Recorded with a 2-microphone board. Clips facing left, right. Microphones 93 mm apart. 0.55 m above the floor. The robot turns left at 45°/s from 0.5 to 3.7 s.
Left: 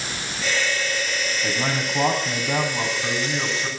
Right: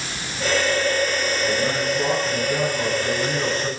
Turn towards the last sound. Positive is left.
turn(degrees=5)